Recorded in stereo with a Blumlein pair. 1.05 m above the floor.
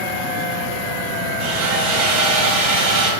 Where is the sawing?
45° right, 1.6 m.